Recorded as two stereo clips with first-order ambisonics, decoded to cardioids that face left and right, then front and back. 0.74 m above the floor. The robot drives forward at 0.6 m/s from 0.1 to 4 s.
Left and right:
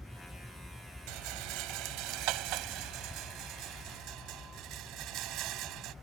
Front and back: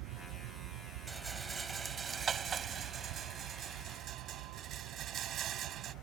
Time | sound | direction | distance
0.0 | a vehicle | straight behind | ?
1.1 | a rattle | 105° right | ?